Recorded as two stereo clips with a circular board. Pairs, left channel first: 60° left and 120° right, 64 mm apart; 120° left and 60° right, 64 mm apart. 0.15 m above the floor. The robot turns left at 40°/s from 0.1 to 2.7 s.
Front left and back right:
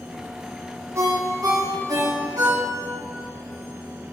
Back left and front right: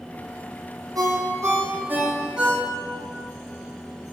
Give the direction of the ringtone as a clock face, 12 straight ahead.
3 o'clock.